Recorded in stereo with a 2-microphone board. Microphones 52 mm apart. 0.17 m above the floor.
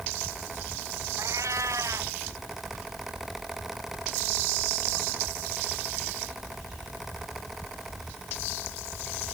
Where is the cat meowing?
80° right.